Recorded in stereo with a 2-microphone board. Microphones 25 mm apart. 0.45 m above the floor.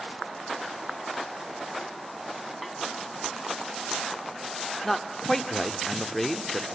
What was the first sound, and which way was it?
A snare drum, centre (ahead or behind).